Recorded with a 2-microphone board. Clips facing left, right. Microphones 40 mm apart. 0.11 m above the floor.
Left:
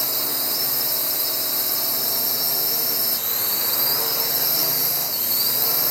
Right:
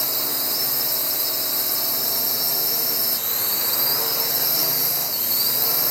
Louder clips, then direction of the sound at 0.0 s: Even; centre (ahead or behind).